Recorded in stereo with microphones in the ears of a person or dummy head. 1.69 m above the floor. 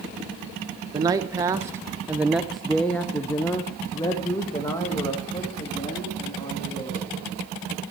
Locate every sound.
0.9 s a man speaking: 15° right (ahead or behind), 1.1 m; by 7.2 s 15° left (ahead or behind), 3.5 m